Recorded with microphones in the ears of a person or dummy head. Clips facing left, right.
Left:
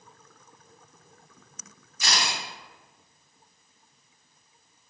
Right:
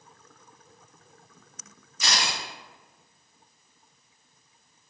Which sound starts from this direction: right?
A camera shutter, at 2.0 s.